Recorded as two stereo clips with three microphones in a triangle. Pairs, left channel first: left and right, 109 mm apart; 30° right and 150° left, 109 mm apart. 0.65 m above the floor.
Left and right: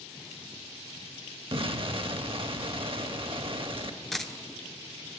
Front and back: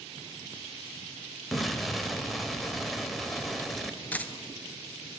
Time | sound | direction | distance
1.5 | an explosion | 120° right | 0.6 m
4.1 | a dropped coin | 5° left | 0.6 m